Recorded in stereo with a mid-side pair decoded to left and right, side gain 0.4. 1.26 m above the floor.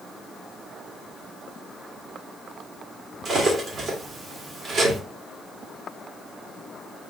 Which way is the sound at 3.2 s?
60° right.